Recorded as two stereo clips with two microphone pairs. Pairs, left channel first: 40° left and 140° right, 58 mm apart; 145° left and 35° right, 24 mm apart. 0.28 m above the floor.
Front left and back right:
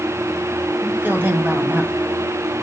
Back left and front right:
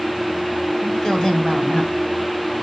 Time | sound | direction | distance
0.8 | a woman speaking | 175° left | 2 m